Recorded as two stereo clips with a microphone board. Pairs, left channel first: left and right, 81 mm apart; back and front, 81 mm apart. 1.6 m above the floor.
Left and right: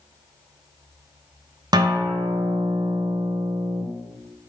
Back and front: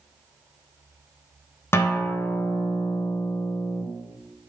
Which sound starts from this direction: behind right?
A guitar, at 1.7 s.